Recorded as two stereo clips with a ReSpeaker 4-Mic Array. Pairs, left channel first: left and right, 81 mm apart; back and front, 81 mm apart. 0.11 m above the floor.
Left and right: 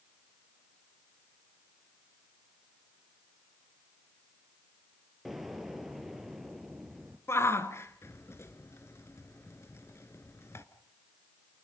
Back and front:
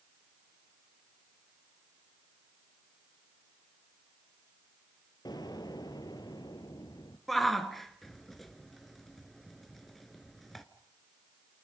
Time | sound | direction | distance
5.2 | an explosion | straight behind | 1.8 m
7.3 | a shout | 95° left | 1.2 m